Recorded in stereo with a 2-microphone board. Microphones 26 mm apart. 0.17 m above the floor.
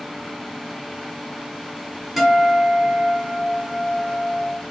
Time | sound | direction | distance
2.2 | a guitar | 10° right (ahead or behind) | 1.2 m